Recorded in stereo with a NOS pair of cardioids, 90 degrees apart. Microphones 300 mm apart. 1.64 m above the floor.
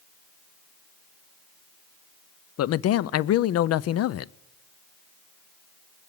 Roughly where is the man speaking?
Ahead left.